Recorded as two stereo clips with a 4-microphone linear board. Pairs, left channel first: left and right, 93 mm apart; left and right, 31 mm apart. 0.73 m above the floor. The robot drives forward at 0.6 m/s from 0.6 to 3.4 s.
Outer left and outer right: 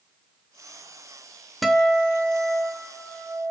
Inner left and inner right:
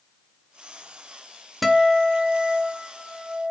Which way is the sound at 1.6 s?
Centre (ahead or behind).